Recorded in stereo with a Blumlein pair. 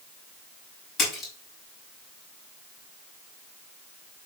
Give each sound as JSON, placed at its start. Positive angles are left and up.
{"t": 1.0, "sound": "a splash", "azimuth_deg": 20, "distance_m": 6.0}